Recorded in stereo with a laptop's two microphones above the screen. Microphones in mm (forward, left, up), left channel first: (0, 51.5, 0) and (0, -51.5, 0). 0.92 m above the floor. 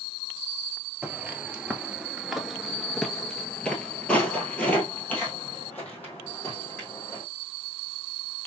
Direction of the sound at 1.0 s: 15° right (ahead or behind).